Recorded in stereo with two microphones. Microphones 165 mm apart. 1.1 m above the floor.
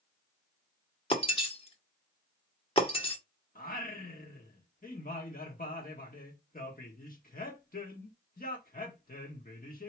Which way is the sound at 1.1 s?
35° left (ahead or behind).